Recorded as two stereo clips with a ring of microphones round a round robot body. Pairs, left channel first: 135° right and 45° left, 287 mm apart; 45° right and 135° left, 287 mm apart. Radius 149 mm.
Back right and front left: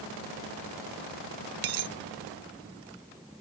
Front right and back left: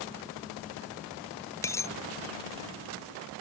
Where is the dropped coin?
35° left.